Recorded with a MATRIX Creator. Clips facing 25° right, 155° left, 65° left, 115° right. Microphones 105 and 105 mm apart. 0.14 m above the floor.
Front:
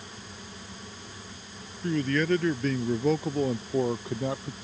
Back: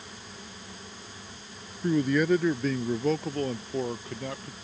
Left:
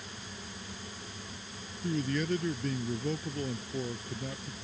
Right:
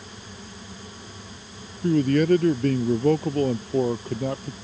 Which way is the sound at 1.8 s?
130° right.